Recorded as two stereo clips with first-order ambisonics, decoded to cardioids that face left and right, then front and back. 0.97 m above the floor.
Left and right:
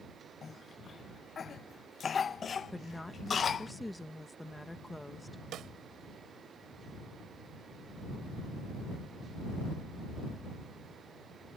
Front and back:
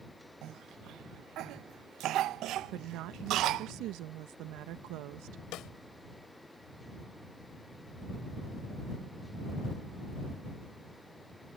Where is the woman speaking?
175° left.